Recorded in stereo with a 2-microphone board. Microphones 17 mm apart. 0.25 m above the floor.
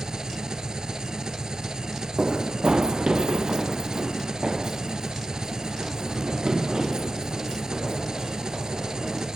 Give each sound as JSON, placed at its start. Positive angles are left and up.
{"t": 0.0, "sound": "an engine running", "side_deg": -50, "distance_m": 1.0}
{"t": 2.2, "sound": "running footsteps", "side_deg": -70, "distance_m": 0.6}